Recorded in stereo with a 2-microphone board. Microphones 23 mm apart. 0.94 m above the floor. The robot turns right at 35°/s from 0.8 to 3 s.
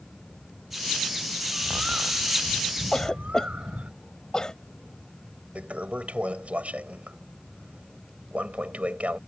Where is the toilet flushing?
75° right (ahead or behind).